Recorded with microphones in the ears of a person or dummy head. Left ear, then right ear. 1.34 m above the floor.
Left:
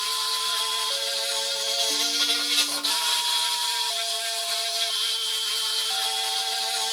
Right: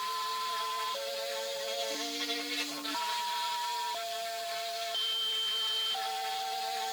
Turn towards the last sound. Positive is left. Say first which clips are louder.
# left 8 dB
turn(degrees=50)  # may be behind; listen again after turning